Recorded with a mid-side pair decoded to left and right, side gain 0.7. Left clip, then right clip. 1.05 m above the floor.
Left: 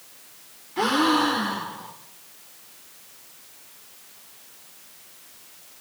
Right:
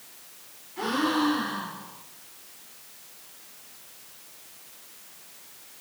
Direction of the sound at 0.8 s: 45° left.